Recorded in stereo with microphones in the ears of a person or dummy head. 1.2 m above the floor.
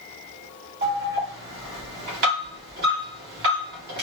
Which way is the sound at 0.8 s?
60° right (ahead or behind).